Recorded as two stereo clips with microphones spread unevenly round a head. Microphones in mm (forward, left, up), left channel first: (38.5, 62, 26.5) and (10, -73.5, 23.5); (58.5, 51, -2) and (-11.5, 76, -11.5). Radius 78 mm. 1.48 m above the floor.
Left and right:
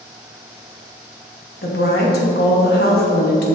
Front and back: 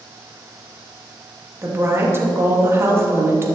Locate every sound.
1.6 s a woman speaking: 105° left, 2.5 m